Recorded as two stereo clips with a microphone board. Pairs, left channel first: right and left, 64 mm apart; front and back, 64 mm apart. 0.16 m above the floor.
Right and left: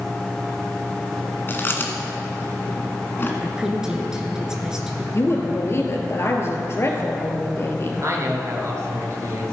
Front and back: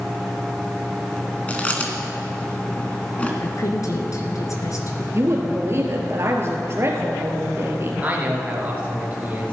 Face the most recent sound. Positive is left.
turn(degrees=120)